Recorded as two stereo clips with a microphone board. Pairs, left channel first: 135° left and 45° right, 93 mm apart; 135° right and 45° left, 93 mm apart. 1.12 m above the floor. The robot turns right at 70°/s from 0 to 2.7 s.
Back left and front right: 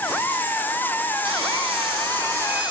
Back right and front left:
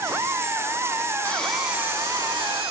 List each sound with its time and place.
1.2 s sawing: 65° right, 9 m; by 2.7 s 35° left, 9 m